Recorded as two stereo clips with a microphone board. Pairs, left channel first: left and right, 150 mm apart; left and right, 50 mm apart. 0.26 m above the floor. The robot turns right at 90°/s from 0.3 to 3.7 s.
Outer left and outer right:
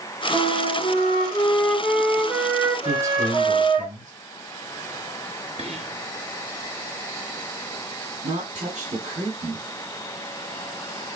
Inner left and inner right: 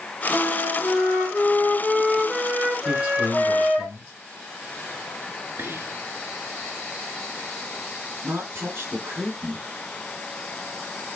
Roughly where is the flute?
Centre.